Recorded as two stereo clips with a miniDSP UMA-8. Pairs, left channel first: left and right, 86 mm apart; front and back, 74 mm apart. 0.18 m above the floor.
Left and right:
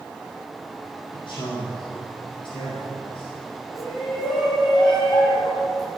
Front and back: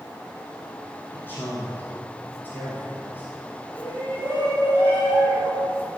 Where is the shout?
60° left, 6 m.